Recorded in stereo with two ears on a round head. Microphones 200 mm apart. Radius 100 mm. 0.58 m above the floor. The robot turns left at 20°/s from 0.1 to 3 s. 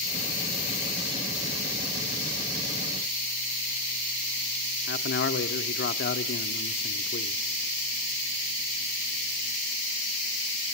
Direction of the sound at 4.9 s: 50° left (ahead or behind).